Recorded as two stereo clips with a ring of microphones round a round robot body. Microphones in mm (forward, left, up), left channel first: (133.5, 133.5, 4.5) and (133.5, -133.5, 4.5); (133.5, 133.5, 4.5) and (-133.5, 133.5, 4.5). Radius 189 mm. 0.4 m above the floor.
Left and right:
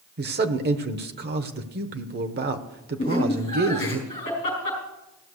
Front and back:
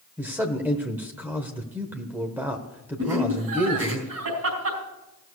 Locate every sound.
0.2 s a man speaking: 100° right, 0.9 m
3.0 s laughter: 155° left, 4 m